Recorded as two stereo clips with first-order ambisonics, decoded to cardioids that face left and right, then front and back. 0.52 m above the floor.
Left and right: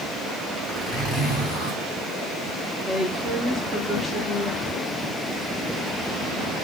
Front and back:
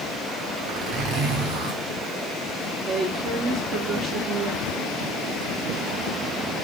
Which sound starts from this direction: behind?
A zipper, at 0.7 s.